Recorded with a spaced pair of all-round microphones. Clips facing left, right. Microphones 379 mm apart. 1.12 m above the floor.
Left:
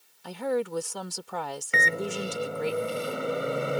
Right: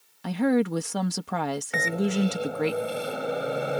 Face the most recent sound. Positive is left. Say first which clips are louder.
# right 4 dB
turn(degrees=5)  # may be behind; listen again after turning